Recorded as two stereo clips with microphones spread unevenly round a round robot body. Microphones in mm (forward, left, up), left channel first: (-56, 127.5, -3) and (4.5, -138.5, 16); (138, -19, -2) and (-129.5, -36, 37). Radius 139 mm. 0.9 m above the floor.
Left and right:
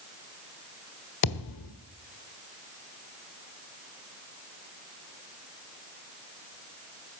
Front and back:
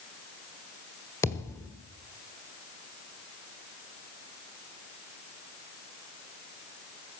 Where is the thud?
85° left, 1.4 m.